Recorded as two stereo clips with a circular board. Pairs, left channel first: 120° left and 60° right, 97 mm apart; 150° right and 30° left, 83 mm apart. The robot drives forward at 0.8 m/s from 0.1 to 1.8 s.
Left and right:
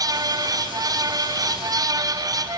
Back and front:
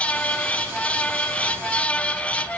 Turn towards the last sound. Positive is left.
No sound to turn to.